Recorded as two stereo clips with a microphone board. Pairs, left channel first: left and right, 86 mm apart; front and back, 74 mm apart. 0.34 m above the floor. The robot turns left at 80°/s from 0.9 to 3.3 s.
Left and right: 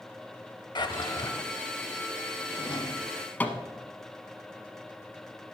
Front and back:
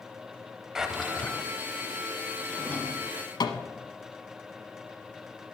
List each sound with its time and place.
0.8 s a drawer: 100° left, 0.7 m; by 1.4 s 55° left, 0.7 m
2.5 s a drawer: 85° left, 0.9 m; by 3.7 s 20° left, 0.9 m